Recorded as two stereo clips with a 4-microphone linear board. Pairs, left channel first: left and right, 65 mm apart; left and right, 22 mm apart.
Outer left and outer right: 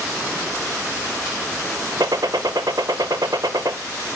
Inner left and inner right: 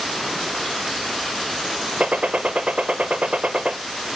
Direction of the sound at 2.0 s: 80° right.